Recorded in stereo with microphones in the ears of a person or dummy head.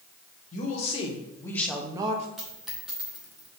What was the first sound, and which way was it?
A woman speaking, 45° left (ahead or behind).